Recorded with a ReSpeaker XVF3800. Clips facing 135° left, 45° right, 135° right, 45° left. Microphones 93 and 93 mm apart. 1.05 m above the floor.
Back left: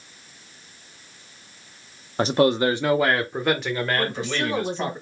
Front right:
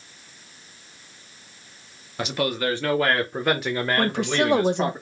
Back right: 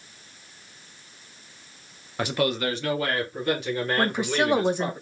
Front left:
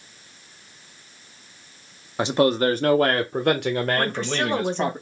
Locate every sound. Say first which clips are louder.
2.2 s a man speaking: back left 7 dB, front left 6 dB; 105° left, 0.6 m; by 5.0 s 25° left, 1.6 m
4.0 s a woman speaking: front right 4 dB, back right 1 dB; 55° right, 0.9 m